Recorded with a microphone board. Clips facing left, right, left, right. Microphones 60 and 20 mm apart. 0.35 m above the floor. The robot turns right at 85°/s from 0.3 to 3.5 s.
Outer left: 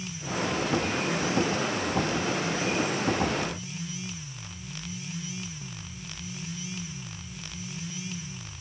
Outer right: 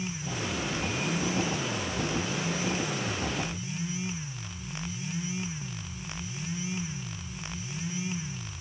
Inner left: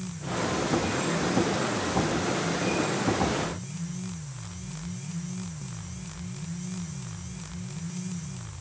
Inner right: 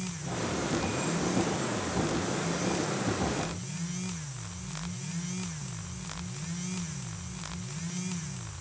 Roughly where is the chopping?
I don't hear chopping.